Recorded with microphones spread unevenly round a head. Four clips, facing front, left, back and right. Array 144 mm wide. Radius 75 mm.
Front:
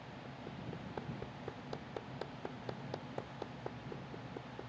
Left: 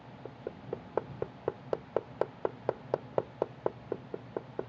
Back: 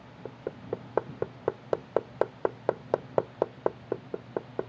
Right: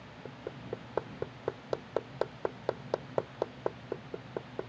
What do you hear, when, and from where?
0.2 s hammering: 175° left